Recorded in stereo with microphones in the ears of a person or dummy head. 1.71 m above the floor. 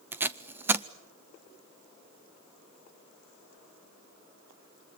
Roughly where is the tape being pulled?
Centre.